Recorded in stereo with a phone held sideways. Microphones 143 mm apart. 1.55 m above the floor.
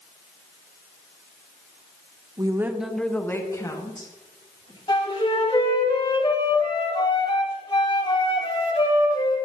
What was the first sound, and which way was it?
A woman speaking, 30° right (ahead or behind).